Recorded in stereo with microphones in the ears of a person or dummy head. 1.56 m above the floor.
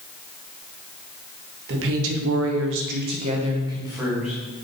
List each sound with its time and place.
1.7 s a woman speaking: 70° right (ahead or behind), 2 m; by 4.4 s centre (ahead or behind), 3 m